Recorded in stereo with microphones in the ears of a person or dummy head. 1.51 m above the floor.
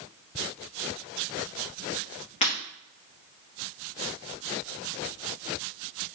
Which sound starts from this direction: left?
Breaking glass, at 2.4 s.